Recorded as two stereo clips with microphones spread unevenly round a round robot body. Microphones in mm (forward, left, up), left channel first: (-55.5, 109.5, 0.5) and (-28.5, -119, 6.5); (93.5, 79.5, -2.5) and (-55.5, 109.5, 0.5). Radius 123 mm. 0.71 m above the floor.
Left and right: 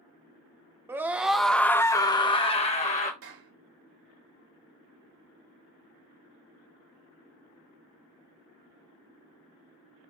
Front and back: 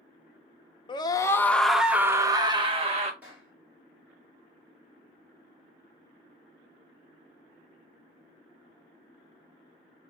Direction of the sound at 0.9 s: 10° right.